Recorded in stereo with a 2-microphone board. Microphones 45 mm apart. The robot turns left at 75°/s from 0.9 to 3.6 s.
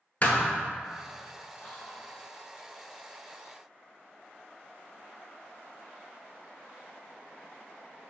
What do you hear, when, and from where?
0.2 s a thud: 35° left (ahead or behind), 0.5 m
1.6 s whispering: 25° left (ahead or behind), 0.8 m; by 2.1 s 20° left (ahead or behind), 0.8 m